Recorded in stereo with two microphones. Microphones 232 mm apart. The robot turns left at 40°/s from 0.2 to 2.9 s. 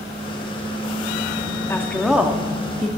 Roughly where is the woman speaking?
Ahead.